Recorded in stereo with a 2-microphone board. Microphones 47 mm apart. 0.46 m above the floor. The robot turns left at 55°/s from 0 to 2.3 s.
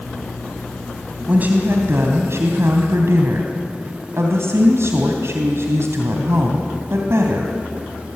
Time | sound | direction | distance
1.3 | a woman speaking | 35° right | 3 m